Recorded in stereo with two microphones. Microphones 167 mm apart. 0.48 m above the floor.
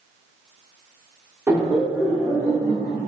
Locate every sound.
1.5 s laughter: 15° right (ahead or behind), 0.9 m; by 3.1 s 25° left (ahead or behind), 0.9 m